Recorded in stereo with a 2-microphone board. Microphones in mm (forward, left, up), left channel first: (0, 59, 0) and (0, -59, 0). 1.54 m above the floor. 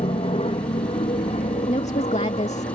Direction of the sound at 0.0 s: 60° left (ahead or behind).